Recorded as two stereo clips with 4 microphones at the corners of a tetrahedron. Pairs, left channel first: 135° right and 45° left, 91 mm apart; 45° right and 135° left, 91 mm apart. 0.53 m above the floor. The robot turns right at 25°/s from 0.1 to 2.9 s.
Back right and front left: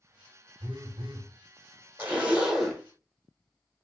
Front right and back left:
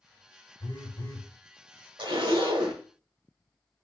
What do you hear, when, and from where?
0.6 s a phone buzzing: 20° left, 1.0 m; by 1.3 s 35° left, 1.0 m
2.0 s a zipper: 115° left, 1.0 m; by 2.8 s 135° left, 1.0 m